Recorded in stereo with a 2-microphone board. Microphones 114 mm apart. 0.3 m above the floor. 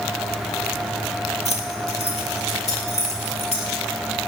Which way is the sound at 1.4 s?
75° left (ahead or behind).